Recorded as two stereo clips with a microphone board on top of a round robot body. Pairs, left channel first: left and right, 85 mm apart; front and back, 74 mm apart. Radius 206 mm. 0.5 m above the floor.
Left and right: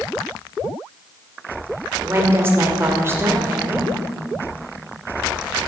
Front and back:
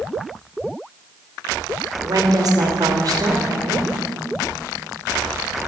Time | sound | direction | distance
2.0 | a woman speaking | 150° right | 2.5 m